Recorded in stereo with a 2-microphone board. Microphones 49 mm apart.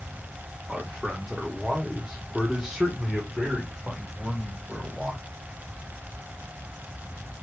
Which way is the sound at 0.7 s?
5° right (ahead or behind).